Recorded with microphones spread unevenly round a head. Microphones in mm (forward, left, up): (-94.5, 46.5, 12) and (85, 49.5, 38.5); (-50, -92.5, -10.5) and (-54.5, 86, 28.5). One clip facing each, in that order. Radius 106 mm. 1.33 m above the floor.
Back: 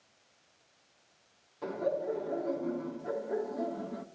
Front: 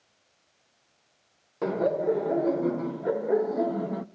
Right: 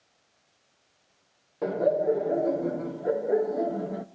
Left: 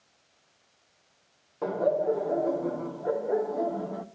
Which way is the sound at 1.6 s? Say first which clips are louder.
Front 8 dB, right 2 dB; 20° right.